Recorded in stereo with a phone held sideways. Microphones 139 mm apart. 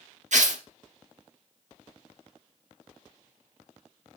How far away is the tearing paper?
About 0.9 m.